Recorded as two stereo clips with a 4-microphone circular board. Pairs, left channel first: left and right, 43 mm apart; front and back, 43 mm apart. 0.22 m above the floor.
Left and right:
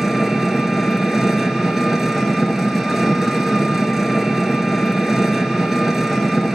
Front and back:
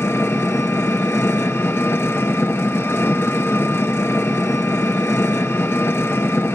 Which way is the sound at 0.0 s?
10° right.